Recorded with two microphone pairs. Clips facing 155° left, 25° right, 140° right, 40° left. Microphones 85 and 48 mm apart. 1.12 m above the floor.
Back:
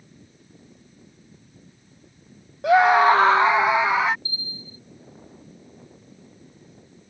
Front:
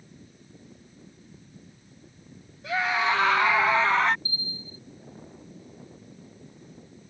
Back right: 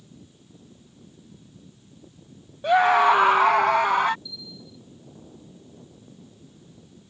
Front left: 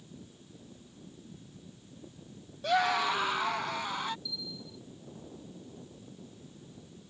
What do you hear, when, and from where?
2.6 s a scream: 155° left; by 4.2 s 125° right
4.2 s a bell: 25° left